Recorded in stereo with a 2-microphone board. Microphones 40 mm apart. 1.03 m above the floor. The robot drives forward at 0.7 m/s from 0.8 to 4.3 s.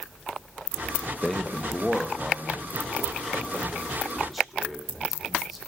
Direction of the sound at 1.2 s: 10° left (ahead or behind).